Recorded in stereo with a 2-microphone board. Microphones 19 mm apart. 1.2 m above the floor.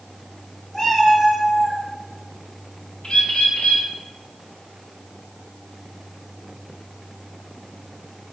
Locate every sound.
0.7 s a cat meowing: 25° left (ahead or behind), 1.8 m; by 1.8 s 15° left (ahead or behind), 1.0 m
3.0 s a bird: 55° left (ahead or behind), 0.8 m